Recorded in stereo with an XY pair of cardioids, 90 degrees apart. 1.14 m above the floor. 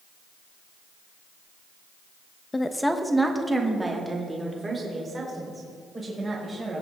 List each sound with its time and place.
2.5 s a woman speaking: 25° left, 1.1 m; by 6.8 s 35° right, 6 m